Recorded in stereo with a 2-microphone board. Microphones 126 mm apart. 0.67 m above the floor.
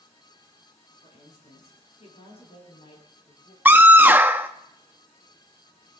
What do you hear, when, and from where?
1.0 s a woman speaking: 65° left (ahead or behind), 8 m; by 3.5 s 55° left (ahead or behind), 8 m
3.6 s a scream: 15° right (ahead or behind), 0.5 m